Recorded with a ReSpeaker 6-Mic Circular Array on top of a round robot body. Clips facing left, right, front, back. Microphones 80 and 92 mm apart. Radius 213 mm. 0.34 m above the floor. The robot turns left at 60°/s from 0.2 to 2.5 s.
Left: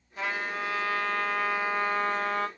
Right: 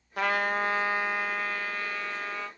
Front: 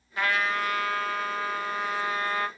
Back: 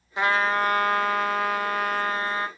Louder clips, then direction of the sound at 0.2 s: Right 5 dB, back 5 dB; 110° right.